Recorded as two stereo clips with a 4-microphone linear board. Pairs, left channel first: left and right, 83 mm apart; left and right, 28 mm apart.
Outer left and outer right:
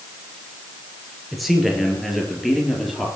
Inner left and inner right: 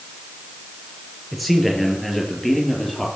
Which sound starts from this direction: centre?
A man speaking, at 1.3 s.